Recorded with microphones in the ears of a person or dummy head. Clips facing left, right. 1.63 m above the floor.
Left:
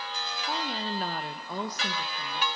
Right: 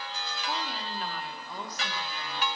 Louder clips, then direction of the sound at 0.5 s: Left 3 dB; 5° left (ahead or behind).